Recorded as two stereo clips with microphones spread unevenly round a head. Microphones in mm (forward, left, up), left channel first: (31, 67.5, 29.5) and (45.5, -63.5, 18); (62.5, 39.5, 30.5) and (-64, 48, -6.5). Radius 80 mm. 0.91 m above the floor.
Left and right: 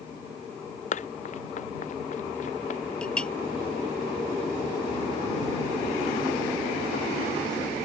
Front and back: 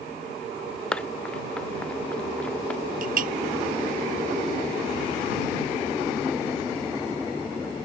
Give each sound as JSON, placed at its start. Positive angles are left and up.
{"t": 0.9, "sound": "running footsteps", "azimuth_deg": 75}
{"t": 3.0, "sound": "a clink", "azimuth_deg": 180}